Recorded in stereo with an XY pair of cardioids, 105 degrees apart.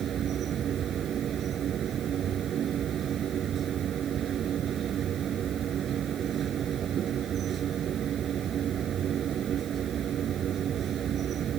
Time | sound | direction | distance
0.0 | a machine running | 55° right | ?